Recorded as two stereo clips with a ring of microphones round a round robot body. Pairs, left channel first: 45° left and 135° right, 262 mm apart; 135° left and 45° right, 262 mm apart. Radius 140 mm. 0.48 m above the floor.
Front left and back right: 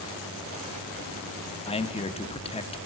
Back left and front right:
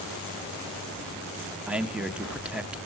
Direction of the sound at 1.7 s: 35° left.